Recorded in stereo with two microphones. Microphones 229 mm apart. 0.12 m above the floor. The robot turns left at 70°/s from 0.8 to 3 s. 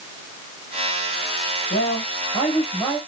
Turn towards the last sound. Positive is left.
turn(degrees=-5)